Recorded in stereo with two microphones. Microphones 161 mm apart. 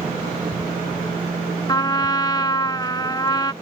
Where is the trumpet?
25° left (ahead or behind).